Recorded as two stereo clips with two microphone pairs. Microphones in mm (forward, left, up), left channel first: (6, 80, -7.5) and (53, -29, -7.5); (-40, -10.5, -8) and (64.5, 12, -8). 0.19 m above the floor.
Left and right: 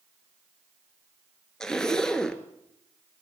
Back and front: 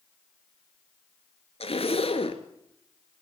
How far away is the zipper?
About 2.5 m.